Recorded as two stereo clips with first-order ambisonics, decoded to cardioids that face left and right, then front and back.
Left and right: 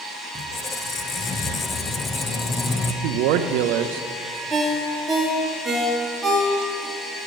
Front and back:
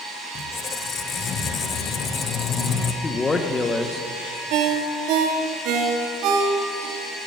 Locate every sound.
0.3 s a squeak: 35° left, 0.7 m
3.0 s a man speaking: 75° right, 0.6 m
4.5 s a ringtone: 170° right, 2 m